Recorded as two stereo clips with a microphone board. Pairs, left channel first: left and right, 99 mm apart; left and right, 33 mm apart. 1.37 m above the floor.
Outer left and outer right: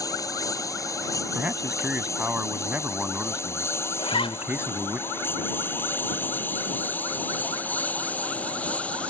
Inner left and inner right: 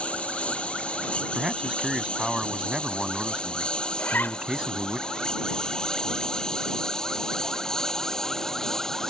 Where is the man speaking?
15° right (ahead or behind).